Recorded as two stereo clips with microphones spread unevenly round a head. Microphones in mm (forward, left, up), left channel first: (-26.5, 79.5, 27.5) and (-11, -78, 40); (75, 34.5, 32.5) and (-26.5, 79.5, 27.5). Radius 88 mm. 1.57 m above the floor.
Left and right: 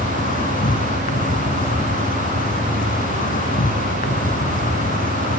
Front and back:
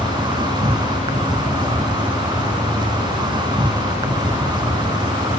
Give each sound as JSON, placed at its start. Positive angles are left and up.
{"t": 0.0, "sound": "an insect", "azimuth_deg": 115, "distance_m": 0.9}